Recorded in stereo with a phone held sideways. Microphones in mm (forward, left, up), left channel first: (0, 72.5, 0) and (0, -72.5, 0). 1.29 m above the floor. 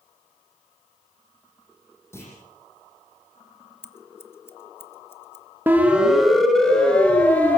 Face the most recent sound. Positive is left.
turn(degrees=10)  # may be behind; listen again after turning